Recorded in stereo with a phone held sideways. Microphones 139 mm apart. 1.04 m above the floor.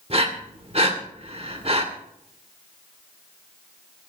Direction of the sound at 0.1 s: 45° right (ahead or behind).